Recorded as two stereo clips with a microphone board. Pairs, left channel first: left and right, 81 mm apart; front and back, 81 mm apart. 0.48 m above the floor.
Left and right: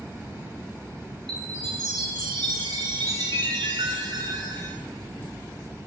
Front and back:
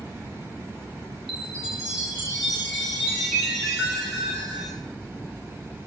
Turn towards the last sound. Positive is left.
turn(degrees=-95)